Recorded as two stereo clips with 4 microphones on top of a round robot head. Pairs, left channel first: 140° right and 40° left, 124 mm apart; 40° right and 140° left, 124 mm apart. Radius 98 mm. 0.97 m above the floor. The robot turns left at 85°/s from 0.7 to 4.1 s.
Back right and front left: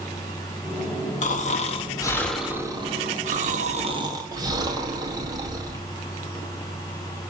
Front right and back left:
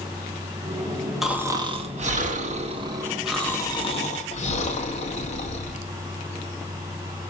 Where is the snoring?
130° right, 1.9 m; by 5.8 s 20° right, 1.9 m.